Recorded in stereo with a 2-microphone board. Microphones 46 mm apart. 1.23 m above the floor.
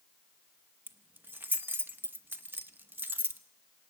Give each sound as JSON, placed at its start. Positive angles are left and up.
{"t": 0.9, "sound": "keys jangling", "side_deg": -50, "distance_m": 1.0}